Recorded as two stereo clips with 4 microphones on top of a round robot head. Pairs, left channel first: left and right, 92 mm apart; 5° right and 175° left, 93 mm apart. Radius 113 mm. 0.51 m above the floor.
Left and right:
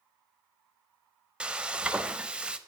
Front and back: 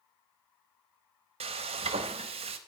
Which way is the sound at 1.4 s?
170° right.